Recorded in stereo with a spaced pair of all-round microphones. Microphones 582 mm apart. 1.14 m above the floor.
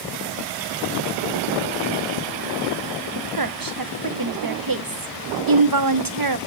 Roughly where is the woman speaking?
Right.